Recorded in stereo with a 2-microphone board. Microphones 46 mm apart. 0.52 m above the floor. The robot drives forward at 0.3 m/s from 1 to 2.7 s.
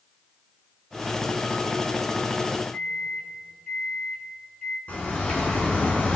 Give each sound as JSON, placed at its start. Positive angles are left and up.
{"t": 2.7, "sound": "a microwave", "side_deg": 15, "distance_m": 3.0}
{"t": 4.9, "sound": "a bird", "side_deg": 30, "distance_m": 3.5}